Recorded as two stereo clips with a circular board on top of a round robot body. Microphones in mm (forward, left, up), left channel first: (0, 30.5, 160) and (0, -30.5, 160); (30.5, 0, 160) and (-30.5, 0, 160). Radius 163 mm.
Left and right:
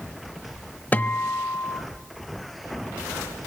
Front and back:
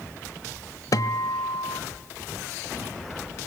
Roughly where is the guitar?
Ahead left.